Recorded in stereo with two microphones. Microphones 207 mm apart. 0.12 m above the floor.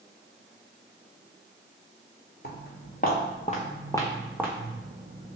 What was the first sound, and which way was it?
Footsteps, 55° left (ahead or behind).